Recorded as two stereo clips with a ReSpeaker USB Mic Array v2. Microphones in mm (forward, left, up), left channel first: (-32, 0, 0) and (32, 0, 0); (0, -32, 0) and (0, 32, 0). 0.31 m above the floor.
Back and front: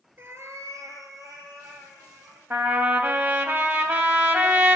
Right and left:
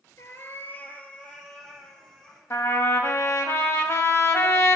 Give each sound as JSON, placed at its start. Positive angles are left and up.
{"t": 0.2, "sound": "a cat meowing", "azimuth_deg": -55, "distance_m": 0.5}
{"t": 2.5, "sound": "a trumpet", "azimuth_deg": -55, "distance_m": 0.7}